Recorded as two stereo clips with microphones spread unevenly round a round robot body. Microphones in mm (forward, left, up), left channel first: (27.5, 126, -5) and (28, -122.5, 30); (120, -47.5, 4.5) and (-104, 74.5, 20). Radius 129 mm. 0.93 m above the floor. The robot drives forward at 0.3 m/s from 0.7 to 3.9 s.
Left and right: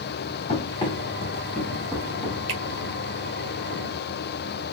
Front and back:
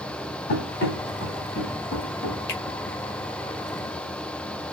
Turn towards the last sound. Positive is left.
turn(degrees=-105)